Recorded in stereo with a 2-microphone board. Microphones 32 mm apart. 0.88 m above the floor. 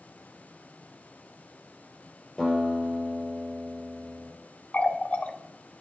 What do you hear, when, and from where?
2.4 s a guitar: 20° left (ahead or behind), 3.5 m
4.7 s a running tap: 45° left (ahead or behind), 0.6 m